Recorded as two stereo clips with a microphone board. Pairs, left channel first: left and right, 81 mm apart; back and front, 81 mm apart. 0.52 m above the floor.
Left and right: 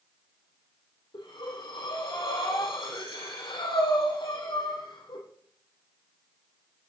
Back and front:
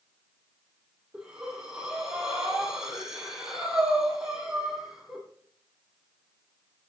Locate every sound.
1.1 s breathing: 80° left, 6.5 m